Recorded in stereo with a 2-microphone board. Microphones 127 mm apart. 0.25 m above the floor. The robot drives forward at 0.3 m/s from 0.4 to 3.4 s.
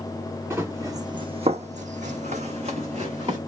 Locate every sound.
0.5 s running footsteps: 20° right (ahead or behind), 1.2 m; by 3.4 s 40° right (ahead or behind), 1.6 m